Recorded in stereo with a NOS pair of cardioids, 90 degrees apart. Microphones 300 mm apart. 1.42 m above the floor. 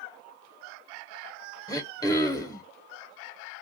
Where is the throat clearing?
10° left, 0.8 m.